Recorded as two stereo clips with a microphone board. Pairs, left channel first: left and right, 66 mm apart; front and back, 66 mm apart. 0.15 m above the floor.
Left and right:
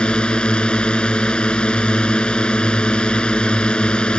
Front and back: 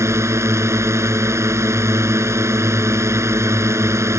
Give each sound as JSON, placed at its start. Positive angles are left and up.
{"t": 0.0, "sound": "a drone", "azimuth_deg": 160}